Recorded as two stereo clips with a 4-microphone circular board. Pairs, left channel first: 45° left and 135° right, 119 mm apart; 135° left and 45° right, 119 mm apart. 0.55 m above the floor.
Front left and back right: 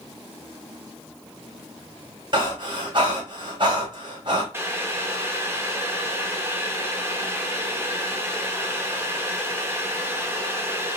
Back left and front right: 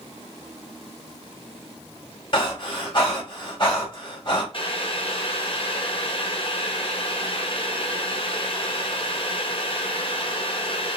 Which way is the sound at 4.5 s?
160° left.